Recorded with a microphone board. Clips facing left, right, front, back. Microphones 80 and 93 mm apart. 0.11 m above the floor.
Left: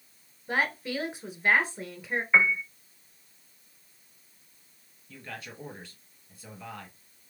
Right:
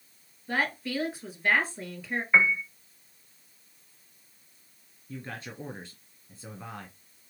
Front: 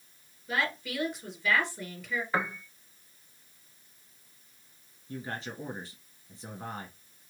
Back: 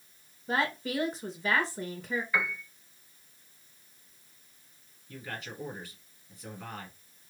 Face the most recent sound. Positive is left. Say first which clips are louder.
# right 3 dB, front 3 dB
turn(degrees=-40)